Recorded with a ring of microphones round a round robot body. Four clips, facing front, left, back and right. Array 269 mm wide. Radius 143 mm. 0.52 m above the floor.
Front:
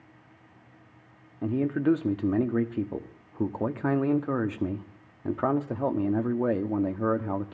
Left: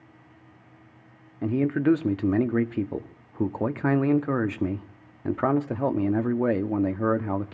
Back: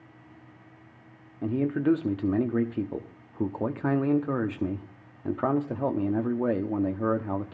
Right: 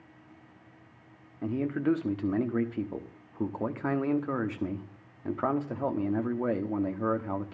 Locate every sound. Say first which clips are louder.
1.4 s a man speaking: left 6 dB, even; 90° left, 1.0 m